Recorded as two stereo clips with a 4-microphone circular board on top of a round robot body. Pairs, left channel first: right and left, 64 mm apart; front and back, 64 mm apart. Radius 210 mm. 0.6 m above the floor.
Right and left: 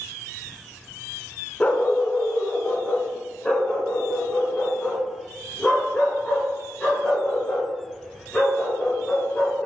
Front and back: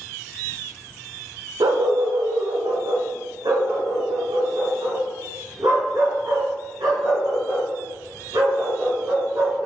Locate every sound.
1.6 s a dog barking: 160° right, 0.7 m; by 9.7 s 165° right, 6 m